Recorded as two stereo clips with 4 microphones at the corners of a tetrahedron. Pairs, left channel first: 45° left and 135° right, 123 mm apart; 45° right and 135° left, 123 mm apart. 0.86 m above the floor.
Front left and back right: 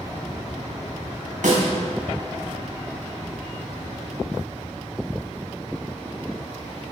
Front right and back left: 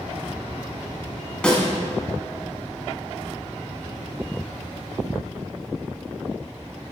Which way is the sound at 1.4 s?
125° right.